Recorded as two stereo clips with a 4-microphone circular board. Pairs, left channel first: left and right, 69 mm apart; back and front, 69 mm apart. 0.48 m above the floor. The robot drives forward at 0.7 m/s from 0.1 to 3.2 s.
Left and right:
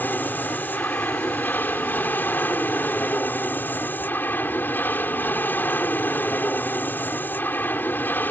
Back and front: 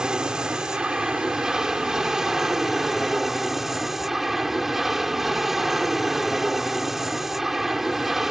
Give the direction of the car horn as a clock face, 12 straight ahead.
I don't hear a car horn.